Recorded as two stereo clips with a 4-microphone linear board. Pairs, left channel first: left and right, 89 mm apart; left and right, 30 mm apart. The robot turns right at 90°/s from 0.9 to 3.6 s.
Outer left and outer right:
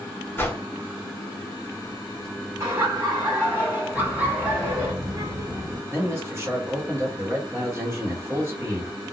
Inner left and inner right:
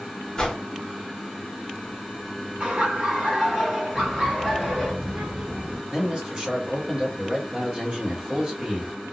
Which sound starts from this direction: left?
A whoosh, at 0.4 s.